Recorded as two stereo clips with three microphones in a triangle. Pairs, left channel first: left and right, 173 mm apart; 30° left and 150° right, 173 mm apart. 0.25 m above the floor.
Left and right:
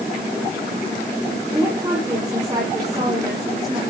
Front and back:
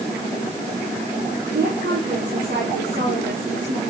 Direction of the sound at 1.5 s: 155° right.